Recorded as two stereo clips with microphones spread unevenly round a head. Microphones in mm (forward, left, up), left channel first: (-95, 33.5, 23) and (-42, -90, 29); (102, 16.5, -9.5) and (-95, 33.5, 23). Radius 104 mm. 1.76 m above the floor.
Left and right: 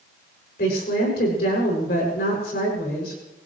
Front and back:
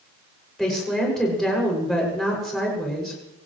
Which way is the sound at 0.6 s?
85° left.